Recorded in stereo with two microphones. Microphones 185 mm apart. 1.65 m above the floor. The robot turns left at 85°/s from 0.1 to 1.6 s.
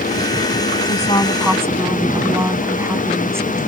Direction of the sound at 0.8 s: 50° left.